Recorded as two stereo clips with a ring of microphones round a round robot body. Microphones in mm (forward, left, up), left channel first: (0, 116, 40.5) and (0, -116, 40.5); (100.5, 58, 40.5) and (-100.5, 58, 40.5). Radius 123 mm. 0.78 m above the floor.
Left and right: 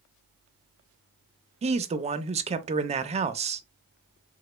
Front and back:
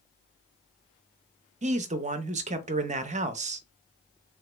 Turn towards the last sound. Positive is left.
turn(degrees=-140)